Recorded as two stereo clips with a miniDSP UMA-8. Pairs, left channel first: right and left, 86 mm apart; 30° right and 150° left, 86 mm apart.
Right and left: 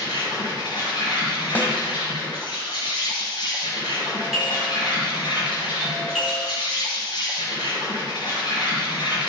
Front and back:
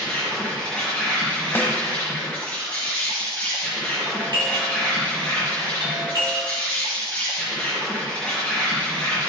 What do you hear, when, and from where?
0.0 s an insect: 100° right, 5 m
1.6 s a snare drum: 55° right, 1.1 m
4.0 s a doorbell: 175° left, 3.5 m